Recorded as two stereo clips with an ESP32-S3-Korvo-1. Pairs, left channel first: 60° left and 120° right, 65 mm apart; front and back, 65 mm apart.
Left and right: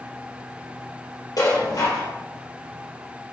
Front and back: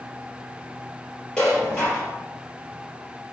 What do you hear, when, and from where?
1.4 s dishes clattering: 80° left, 3.5 m